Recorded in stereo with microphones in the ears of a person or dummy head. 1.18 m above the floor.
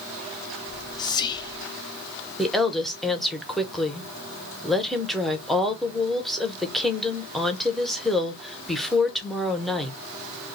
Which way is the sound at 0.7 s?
25° left (ahead or behind).